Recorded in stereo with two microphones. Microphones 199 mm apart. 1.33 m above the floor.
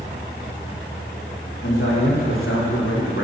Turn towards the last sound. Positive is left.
turn(degrees=60)  # may be behind; listen again after turning